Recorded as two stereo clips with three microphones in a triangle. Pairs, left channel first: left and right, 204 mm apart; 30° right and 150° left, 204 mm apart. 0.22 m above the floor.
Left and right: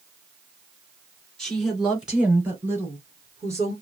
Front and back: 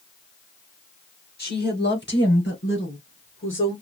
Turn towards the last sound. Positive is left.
turn(degrees=-15)